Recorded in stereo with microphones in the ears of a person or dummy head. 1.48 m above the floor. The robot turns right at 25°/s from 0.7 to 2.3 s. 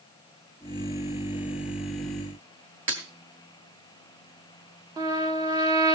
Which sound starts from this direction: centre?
A trumpet, at 5.0 s.